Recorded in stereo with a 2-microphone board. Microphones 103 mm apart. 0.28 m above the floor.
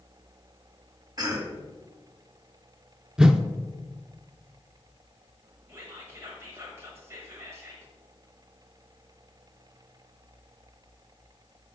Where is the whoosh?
10° right (ahead or behind), 0.5 m.